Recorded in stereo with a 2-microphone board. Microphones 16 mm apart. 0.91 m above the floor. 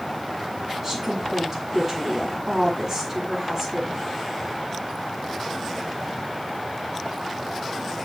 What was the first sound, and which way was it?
A woman speaking, 25° right (ahead or behind).